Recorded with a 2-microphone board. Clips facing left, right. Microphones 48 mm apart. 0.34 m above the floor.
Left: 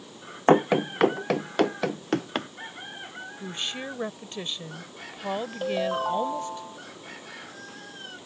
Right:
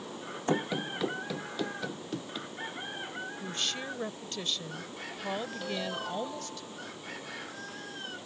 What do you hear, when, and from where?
0.5 s running footsteps: 55° left (ahead or behind); by 2.5 s 60° left (ahead or behind)
3.4 s a woman speaking: 25° left (ahead or behind)
5.6 s a ringtone: 45° left (ahead or behind)